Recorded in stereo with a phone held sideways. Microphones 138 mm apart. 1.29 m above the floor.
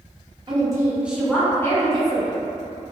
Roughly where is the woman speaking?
Right.